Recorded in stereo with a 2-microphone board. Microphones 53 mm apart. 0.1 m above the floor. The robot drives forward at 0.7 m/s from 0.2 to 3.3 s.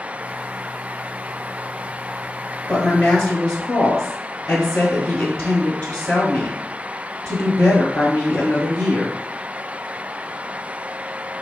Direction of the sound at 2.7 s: 15° left (ahead or behind).